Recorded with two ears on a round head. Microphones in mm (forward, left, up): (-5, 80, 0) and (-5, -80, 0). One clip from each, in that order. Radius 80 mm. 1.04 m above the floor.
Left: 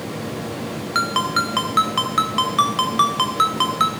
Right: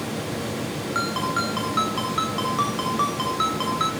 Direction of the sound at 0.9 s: 45° left (ahead or behind).